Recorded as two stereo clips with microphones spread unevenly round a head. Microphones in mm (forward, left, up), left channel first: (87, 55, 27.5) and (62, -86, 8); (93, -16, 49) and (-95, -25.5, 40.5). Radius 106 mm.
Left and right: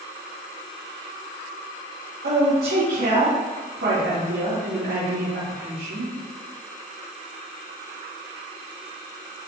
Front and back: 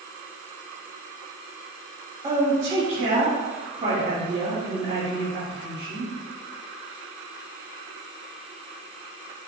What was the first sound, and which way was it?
A woman speaking, 110° right.